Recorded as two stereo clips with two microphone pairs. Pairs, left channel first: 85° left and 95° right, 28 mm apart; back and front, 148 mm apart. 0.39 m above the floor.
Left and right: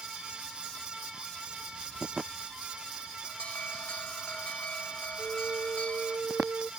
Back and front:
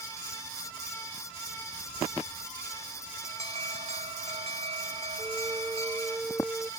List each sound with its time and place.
3.2 s an alarm: 45° left
5.2 s a flute: 85° right